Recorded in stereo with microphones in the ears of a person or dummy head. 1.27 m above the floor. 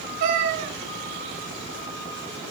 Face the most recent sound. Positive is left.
turn(degrees=-45)  # may be behind; listen again after turning